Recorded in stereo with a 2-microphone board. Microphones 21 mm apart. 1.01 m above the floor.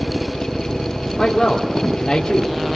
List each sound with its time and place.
1.2 s a man speaking: 25° left (ahead or behind), 3 m